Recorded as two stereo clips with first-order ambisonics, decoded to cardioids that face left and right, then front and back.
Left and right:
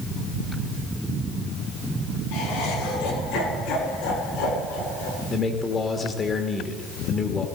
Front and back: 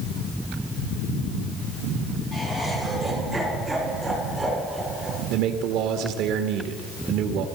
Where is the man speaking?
160° left, 1.5 m.